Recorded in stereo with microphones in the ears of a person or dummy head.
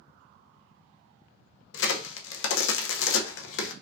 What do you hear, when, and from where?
1.7 s a crack: 75° left (ahead or behind), 0.6 m